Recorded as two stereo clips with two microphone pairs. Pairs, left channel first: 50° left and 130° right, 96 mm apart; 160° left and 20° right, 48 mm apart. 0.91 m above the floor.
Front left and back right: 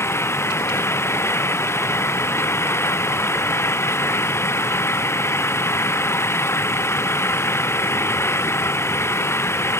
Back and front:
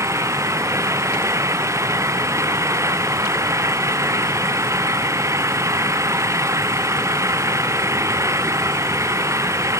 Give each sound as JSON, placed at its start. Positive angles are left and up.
{"t": 0.0, "sound": "an engine running", "azimuth_deg": -10}